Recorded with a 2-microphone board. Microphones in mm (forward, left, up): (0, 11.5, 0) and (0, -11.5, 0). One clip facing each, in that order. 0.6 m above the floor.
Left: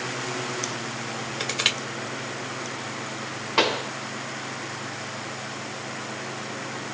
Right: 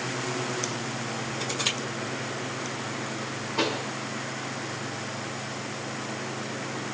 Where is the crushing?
65° left (ahead or behind), 1.9 m.